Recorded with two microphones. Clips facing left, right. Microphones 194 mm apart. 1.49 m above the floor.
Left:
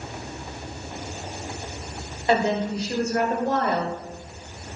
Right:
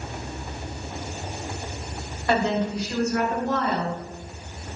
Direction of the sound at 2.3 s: 20° left (ahead or behind).